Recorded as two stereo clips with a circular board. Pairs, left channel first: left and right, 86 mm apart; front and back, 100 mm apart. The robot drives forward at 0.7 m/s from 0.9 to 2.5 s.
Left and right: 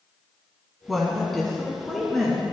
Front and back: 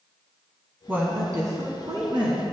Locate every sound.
0.9 s a woman speaking: straight behind, 1.0 m